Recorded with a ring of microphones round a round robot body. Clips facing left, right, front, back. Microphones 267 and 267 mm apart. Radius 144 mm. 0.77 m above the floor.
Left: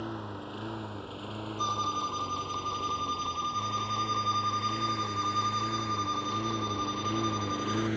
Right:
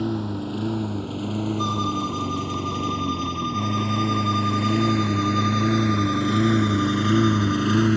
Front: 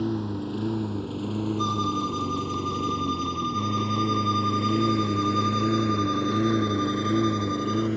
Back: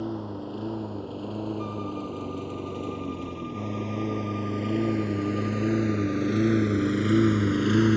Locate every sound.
0.0 s a lawn mower: 60° right; by 8.0 s 120° right
1.6 s a violin: 25° right